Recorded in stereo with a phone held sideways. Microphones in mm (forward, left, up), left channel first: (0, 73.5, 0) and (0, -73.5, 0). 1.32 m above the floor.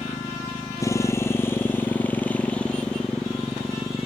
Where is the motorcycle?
25° left (ahead or behind); by 4.1 s centre (ahead or behind).